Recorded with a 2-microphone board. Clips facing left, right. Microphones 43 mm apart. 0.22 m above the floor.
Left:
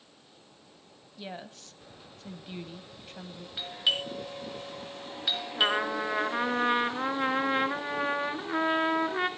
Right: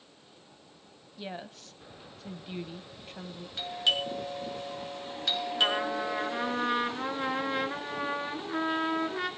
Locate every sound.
1.2 s a woman speaking: centre (ahead or behind), 0.9 m
3.6 s a doorbell: 10° left (ahead or behind), 4 m
5.5 s a trumpet: 25° left (ahead or behind), 1.1 m